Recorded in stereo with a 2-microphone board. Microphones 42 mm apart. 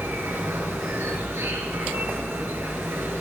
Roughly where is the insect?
Right.